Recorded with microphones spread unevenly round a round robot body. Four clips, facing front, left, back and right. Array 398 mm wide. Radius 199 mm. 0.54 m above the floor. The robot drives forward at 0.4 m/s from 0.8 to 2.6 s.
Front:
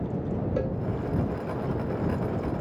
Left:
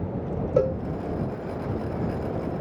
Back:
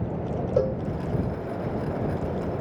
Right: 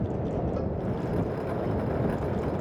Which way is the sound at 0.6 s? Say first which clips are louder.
Left 9 dB, back 9 dB; 115° left.